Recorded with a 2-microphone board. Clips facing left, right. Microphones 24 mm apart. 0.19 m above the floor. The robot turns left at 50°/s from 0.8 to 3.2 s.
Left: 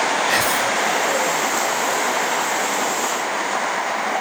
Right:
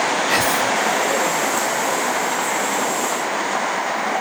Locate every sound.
0.3 s whispering: centre (ahead or behind), 1.2 m